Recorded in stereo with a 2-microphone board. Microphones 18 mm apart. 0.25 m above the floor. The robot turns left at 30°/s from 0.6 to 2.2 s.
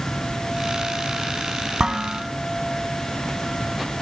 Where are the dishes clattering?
50° right (ahead or behind), 1.2 m; by 2.2 s 40° right (ahead or behind), 1.2 m.